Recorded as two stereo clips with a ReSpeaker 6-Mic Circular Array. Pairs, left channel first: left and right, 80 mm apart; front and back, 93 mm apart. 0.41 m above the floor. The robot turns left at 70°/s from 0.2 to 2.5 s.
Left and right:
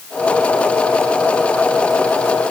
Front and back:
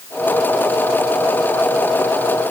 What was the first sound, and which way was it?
Only background noise.